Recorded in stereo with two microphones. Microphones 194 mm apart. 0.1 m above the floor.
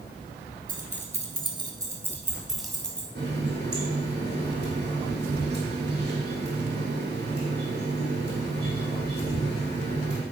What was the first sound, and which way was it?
Keys jangling, 45° right (ahead or behind).